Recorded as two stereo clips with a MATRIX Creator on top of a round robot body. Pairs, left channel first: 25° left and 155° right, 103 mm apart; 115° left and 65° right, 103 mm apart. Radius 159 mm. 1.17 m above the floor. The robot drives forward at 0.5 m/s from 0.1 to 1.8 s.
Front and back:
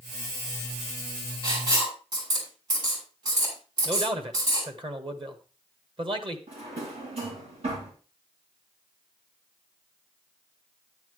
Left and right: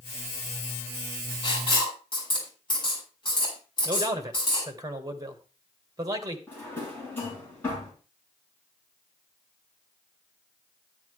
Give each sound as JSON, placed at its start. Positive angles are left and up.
{"t": 1.4, "sound": "writing", "azimuth_deg": 155, "distance_m": 5.5}
{"t": 3.9, "sound": "a man speaking", "azimuth_deg": -125, "distance_m": 1.7}
{"t": 6.5, "sound": "a drawer", "azimuth_deg": 180, "distance_m": 4.0}